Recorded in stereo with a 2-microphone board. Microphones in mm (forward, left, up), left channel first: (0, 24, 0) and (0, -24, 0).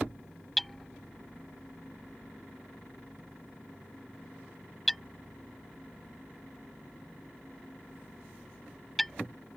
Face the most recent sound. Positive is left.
turn(degrees=5)  # may be behind; listen again after turning